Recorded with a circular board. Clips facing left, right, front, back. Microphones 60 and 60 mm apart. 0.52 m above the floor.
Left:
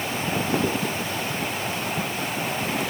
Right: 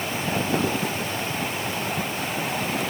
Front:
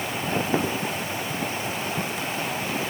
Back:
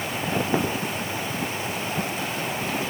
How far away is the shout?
I don't hear a shout.